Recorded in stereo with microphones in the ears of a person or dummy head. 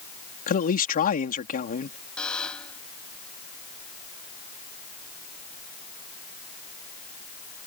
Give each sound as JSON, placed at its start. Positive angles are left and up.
{"t": 0.5, "sound": "a man speaking", "side_deg": 40}
{"t": 2.2, "sound": "a buzzer", "side_deg": 10}